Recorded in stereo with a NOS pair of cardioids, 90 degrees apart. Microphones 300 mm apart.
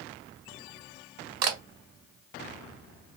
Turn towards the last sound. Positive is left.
turn(degrees=-60)